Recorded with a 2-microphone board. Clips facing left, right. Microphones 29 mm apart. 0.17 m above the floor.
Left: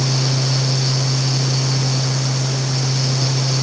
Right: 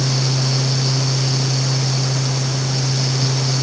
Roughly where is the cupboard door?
No cupboard door in this recording.